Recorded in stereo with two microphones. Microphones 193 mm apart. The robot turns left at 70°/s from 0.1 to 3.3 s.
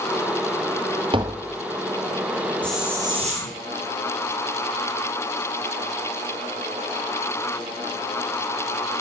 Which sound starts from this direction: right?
Tapping, at 1.1 s.